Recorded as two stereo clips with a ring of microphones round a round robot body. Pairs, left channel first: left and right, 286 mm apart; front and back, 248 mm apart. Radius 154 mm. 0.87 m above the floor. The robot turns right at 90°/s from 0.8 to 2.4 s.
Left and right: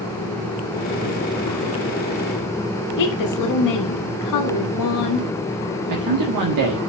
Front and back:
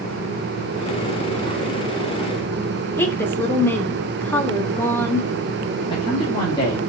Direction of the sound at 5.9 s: 75° right.